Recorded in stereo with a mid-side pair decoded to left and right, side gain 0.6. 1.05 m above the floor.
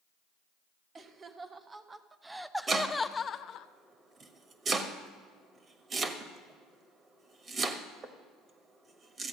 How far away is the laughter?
About 1.4 m.